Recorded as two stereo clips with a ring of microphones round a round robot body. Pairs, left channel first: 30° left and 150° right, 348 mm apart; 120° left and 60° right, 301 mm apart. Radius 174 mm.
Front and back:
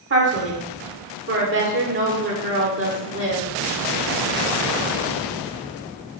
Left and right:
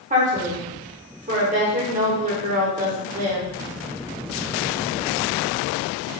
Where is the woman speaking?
115° right, 1.5 m.